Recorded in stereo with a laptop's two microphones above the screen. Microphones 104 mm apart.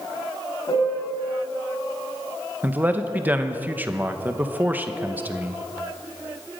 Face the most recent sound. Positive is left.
turn(degrees=-15)  # may be behind; listen again after turning